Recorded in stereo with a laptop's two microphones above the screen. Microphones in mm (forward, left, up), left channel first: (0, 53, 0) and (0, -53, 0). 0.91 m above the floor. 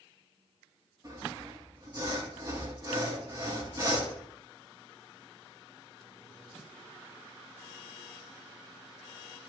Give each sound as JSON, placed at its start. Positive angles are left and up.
{"t": 1.0, "sound": "sawing", "side_deg": -35, "distance_m": 7.5}